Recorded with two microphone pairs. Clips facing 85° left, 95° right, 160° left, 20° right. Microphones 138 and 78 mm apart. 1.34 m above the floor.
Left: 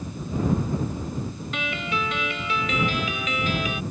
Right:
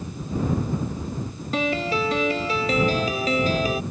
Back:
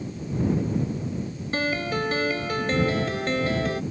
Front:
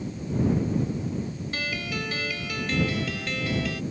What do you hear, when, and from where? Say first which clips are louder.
1.5 s a piano: right 7 dB, back 8 dB; 145° right